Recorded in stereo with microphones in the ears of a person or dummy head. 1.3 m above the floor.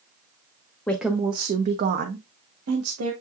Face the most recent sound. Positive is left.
turn(degrees=-70)  # may be behind; listen again after turning